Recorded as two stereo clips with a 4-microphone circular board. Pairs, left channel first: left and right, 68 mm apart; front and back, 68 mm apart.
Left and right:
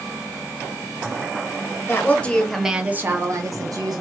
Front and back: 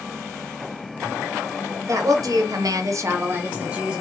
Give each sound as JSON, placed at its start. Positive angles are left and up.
{"t": 1.9, "sound": "a woman speaking", "azimuth_deg": 145, "distance_m": 0.9}